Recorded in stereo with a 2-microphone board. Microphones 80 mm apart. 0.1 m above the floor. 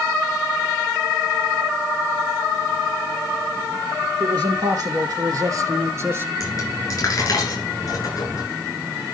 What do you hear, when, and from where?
4.2 s a man speaking: 60° right (ahead or behind), 3 m; by 6.3 s 30° right (ahead or behind), 1.7 m
6.4 s a dropped coin: 40° left (ahead or behind), 9 m